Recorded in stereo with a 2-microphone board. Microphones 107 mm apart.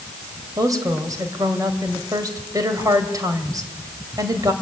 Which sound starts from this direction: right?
A woman speaking, at 0.6 s.